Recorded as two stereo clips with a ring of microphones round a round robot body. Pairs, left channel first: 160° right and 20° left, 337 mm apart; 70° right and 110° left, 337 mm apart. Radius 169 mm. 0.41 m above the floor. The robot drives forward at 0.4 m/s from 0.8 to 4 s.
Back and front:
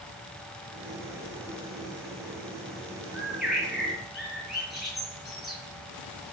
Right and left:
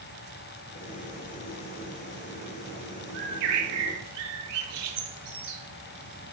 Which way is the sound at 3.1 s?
110° left.